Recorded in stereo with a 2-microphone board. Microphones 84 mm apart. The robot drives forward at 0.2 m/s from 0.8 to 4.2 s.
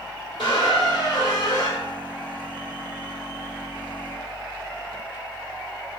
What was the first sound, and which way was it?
A squeak, 55° left (ahead or behind).